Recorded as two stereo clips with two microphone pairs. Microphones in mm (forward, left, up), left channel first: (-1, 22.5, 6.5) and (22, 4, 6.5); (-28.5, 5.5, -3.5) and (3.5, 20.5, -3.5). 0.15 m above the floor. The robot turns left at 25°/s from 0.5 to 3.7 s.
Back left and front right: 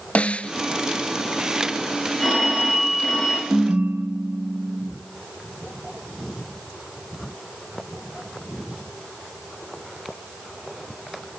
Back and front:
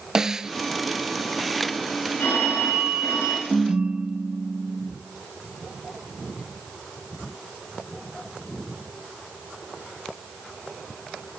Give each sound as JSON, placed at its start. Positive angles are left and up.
{"t": 0.1, "sound": "a snare drum", "azimuth_deg": 100, "distance_m": 1.0}
{"t": 2.2, "sound": "a phone ringing", "azimuth_deg": -130, "distance_m": 9.0}
{"t": 3.5, "sound": "a ringtone", "azimuth_deg": -25, "distance_m": 2.5}